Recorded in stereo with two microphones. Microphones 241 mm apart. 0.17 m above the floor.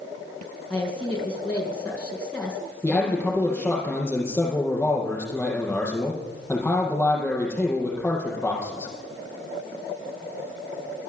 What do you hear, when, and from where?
0.7 s a woman speaking: 10° left (ahead or behind), 5 m
2.8 s a man speaking: 10° left (ahead or behind), 7.5 m